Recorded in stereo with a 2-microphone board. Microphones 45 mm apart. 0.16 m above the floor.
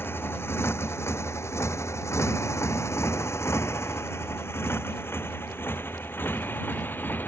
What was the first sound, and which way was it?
A motorcycle, 55° left (ahead or behind).